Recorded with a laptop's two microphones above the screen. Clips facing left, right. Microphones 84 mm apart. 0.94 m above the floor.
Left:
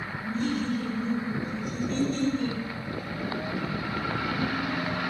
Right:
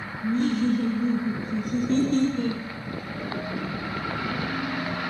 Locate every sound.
0.2 s laughter: 60° right (ahead or behind), 1.1 m